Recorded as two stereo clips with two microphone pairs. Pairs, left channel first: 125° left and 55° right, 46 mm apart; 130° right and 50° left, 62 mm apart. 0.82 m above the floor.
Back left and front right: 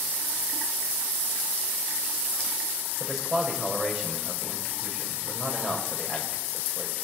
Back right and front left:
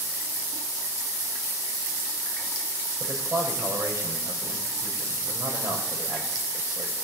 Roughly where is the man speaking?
Ahead left.